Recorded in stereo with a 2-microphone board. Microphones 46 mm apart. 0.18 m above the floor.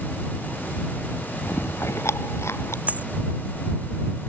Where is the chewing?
80° left.